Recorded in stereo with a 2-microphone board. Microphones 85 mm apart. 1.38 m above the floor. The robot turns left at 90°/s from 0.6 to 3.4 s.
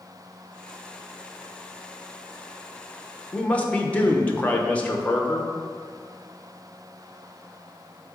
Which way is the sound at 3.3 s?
10° left (ahead or behind).